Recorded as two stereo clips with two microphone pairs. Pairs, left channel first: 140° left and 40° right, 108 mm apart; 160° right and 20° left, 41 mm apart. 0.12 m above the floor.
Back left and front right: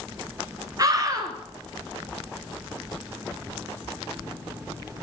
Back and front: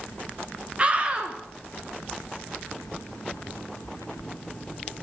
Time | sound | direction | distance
0.8 | a scream | 20° right | 1.4 m